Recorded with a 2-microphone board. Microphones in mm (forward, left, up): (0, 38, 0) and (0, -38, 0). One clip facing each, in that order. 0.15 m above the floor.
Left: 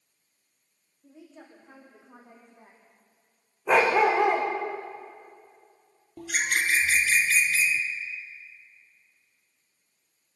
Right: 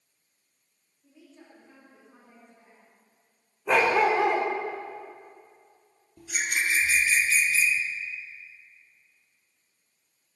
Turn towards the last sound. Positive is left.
turn(degrees=70)  # may be behind; listen again after turning